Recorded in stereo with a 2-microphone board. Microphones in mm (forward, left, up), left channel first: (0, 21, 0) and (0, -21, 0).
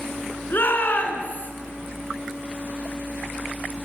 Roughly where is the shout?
Left.